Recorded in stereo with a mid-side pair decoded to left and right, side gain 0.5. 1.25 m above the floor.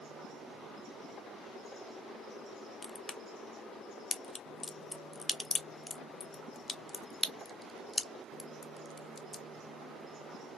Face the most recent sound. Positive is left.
turn(degrees=30)